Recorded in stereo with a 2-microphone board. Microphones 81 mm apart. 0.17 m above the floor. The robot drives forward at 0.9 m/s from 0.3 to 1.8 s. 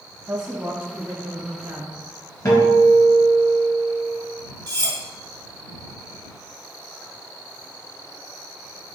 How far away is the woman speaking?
About 1.1 m.